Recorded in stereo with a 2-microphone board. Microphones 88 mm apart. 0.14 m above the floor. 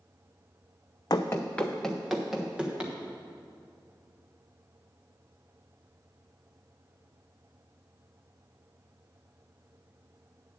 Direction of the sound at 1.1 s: 50° left (ahead or behind).